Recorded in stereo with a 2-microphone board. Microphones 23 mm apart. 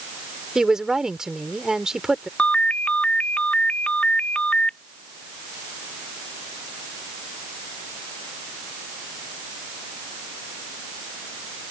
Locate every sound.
0.6 s a woman speaking: 30° right (ahead or behind)
2.4 s a ringtone: 75° left (ahead or behind)